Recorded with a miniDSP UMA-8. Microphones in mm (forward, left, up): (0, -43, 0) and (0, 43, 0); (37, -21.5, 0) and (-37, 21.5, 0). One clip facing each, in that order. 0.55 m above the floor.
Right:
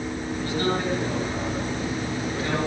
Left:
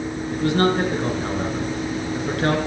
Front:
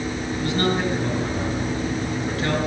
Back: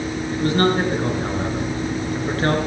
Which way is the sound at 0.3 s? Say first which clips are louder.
Left 7 dB, back 5 dB; 105° left.